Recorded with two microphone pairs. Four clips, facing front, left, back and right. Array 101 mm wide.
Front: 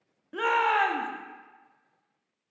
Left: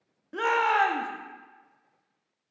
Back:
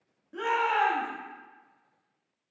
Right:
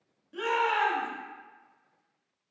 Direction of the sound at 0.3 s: 55° left.